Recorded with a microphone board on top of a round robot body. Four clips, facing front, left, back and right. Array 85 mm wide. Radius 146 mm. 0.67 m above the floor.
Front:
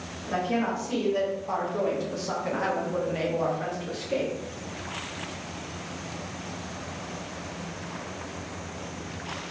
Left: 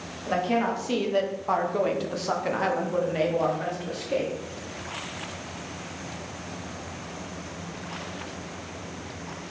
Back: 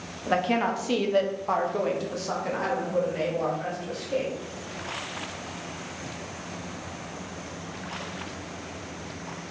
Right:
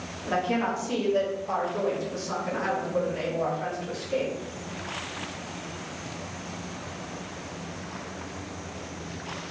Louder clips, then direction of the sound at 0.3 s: Left 1 dB, back 3 dB; 175° left.